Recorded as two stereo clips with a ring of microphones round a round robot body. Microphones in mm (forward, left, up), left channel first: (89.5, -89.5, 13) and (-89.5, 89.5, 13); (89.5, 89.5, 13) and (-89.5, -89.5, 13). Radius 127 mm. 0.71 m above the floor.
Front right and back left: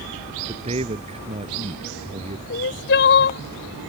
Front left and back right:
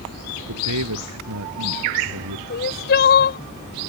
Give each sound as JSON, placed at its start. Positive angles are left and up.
{"t": 0.5, "sound": "a man speaking", "azimuth_deg": -160}
{"t": 2.5, "sound": "crying", "azimuth_deg": 0}